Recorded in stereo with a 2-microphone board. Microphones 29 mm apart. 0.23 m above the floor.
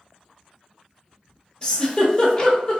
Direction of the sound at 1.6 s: 25° left (ahead or behind).